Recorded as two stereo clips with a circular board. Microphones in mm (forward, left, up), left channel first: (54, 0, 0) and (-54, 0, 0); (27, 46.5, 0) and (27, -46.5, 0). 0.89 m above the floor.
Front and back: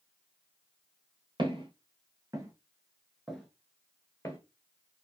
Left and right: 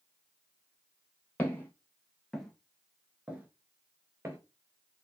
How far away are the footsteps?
About 1.4 m.